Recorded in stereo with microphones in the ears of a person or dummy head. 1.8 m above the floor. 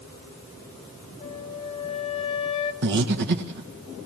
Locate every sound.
1.2 s a flute: 30° left (ahead or behind), 2.5 m
2.8 s breathing: 60° right (ahead or behind), 1.7 m